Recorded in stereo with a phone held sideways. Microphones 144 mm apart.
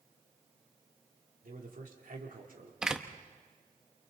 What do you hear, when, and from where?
1.4 s a man speaking: 80° right, 3 m
2.8 s a door slam: 5° right (ahead or behind), 0.9 m